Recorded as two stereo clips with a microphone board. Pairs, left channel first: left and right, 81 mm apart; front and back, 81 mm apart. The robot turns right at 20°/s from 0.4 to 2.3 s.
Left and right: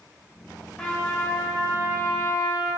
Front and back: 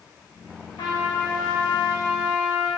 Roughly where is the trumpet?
Ahead.